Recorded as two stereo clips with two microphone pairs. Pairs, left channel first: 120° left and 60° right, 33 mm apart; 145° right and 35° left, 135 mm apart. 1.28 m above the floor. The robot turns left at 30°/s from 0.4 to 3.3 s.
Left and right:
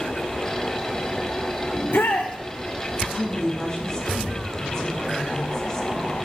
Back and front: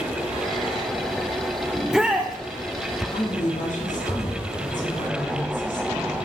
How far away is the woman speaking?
About 2.0 m.